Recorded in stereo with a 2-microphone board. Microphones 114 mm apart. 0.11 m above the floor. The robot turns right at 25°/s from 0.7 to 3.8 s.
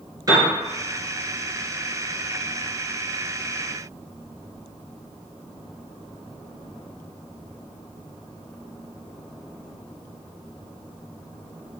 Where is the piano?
35° right (ahead or behind), 2 m.